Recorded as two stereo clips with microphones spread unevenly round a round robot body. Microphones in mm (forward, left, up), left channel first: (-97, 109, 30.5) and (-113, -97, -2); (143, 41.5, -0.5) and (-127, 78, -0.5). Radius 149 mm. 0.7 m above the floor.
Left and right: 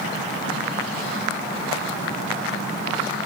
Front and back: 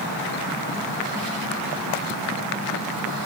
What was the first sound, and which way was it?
Only background noise.